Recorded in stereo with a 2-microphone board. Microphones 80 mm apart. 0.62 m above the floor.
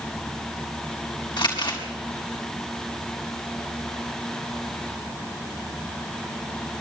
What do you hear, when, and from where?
1.4 s crumpling: 70° left (ahead or behind), 5.5 m